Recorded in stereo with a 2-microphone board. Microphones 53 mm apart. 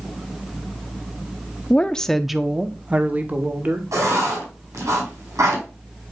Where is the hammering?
I don't hear hammering.